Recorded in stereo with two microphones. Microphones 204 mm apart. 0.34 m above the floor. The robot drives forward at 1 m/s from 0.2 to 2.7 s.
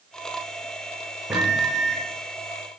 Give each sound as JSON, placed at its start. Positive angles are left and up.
{"t": 1.3, "sound": "a microwave", "side_deg": -5, "distance_m": 0.7}